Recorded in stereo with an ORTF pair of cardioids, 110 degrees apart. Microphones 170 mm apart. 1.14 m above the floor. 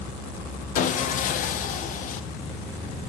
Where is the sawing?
50° left, 0.5 m.